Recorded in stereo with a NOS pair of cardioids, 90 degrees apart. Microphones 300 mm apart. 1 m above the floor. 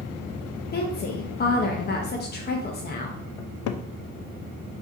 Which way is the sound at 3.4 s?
70° left.